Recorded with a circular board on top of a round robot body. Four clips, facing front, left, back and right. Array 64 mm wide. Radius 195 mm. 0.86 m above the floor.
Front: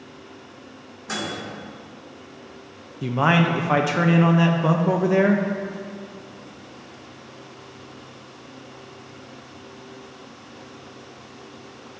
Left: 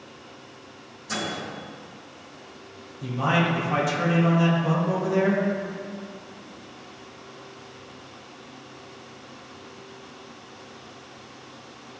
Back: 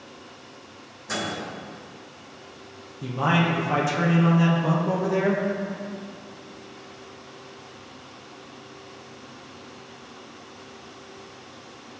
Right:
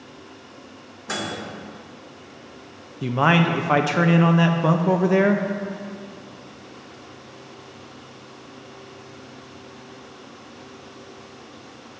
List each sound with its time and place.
1.1 s a microwave: 70° right, 2.5 m
3.0 s a man speaking: 65° right, 0.8 m